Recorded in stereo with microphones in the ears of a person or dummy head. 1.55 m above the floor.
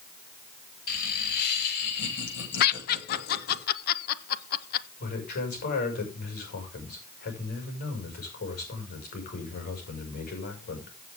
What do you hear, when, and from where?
0.9 s laughter: 55° left (ahead or behind), 6.5 m; by 3.6 s 70° left (ahead or behind), 9 m
2.6 s laughter: 55° left (ahead or behind), 1.3 m
5.0 s a man speaking: 55° left (ahead or behind), 5.5 m